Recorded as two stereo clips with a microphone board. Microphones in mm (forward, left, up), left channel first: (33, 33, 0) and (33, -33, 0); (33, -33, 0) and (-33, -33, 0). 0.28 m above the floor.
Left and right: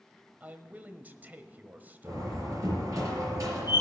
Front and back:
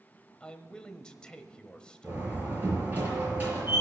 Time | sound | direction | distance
0.4 | a man speaking | 60° right | 1.0 m
2.0 | a door slam | 120° right | 5 m